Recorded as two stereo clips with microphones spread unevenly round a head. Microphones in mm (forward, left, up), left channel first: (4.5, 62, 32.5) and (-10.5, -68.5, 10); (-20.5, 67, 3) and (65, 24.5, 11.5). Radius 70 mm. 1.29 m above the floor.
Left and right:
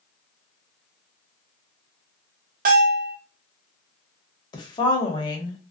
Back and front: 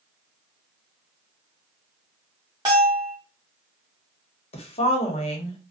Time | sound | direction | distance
2.6 | a bell | 95° right | 1.0 m
4.5 | a woman speaking | 145° left | 0.9 m